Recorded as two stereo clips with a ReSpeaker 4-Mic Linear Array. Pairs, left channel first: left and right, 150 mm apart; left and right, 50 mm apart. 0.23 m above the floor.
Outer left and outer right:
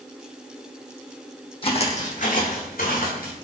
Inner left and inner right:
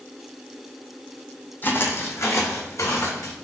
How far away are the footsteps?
About 0.7 m.